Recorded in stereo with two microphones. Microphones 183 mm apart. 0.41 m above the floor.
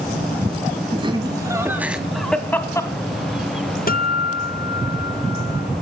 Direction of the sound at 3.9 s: 50° left (ahead or behind).